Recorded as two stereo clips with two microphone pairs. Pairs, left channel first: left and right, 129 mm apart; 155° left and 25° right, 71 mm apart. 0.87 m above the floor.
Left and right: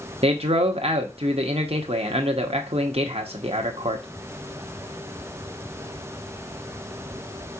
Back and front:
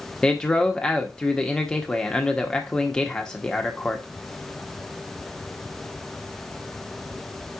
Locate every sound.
0.2 s a man speaking: 130° right, 0.8 m